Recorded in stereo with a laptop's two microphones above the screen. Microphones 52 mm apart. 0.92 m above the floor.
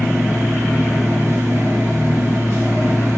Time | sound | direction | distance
0.0 | a machine running | 75° right (ahead or behind) | 2 m